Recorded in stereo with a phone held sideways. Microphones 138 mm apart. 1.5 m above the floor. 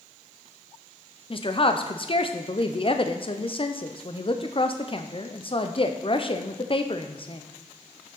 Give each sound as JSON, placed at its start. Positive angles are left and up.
{"t": 1.3, "sound": "a woman speaking", "side_deg": 40, "distance_m": 0.7}